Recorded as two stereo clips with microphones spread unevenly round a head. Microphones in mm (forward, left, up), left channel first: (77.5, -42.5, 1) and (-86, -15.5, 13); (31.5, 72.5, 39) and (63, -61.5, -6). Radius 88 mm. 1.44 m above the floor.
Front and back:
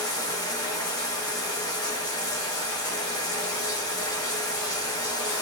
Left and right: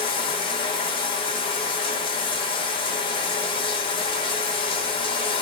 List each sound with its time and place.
0.0 s running water: 60° left, 1.0 m